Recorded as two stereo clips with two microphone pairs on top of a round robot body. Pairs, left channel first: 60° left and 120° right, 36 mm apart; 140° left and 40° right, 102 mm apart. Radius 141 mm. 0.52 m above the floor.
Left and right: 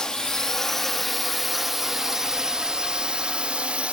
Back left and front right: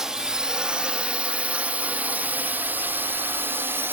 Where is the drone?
25° left; by 3.9 s 75° right.